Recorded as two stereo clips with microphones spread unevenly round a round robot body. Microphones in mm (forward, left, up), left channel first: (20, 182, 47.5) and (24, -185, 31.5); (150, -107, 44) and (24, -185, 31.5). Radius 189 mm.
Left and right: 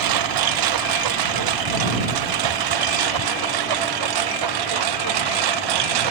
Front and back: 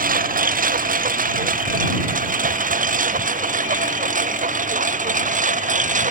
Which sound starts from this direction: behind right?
A lawn mower, at 0.0 s.